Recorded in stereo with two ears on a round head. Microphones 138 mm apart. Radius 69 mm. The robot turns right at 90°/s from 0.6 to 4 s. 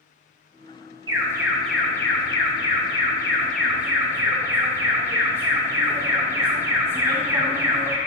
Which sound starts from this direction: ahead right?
An alarm, at 1.1 s.